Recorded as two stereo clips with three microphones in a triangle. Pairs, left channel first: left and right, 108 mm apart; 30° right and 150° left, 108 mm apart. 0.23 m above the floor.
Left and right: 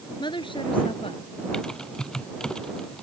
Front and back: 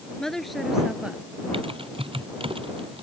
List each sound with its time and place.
0.2 s a woman speaking: 55° left; by 1.2 s 75° left
1.5 s typing on a keyboard: 175° left